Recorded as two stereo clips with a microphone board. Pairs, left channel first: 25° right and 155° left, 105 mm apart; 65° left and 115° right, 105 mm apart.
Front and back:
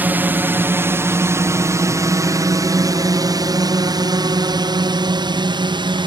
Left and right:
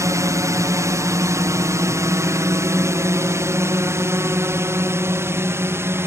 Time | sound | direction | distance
0.0 | a drone | 145° right | ?